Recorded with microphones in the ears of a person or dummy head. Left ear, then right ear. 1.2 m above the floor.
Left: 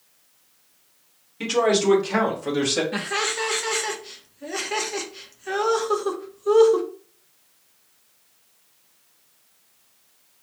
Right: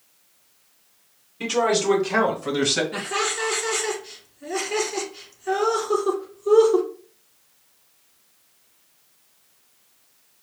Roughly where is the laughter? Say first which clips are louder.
Even; centre.